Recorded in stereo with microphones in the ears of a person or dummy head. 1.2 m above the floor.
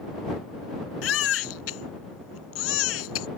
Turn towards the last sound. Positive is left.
turn(degrees=90)